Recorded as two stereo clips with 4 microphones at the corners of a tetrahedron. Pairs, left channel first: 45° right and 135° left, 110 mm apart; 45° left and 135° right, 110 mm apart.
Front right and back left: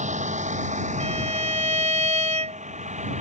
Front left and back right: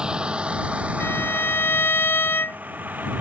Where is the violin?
115° left.